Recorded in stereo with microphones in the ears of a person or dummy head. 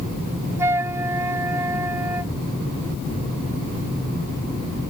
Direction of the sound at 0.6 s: 15° right (ahead or behind).